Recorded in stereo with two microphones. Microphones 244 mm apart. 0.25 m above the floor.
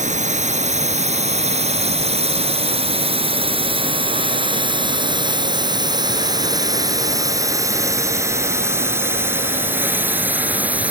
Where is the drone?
30° right (ahead or behind); by 10.9 s 5° right (ahead or behind).